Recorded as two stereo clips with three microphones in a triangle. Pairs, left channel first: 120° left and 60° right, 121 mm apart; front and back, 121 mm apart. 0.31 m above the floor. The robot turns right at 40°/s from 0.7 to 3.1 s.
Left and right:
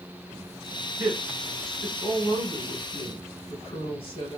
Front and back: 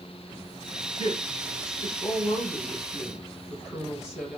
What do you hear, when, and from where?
1.0 s a woman speaking: 10° left, 1.9 m; by 4.4 s 95° left, 1.9 m